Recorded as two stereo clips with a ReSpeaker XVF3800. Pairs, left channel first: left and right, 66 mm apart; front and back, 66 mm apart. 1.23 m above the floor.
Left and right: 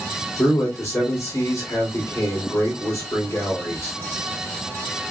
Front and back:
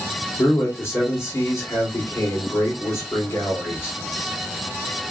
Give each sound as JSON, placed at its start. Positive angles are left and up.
{"t": 0.4, "sound": "a man speaking", "azimuth_deg": 50, "distance_m": 3.0}